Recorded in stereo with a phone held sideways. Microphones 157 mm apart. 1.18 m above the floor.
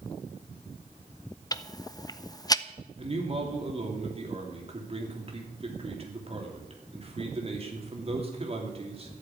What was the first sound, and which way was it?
Ticking, 25° left (ahead or behind).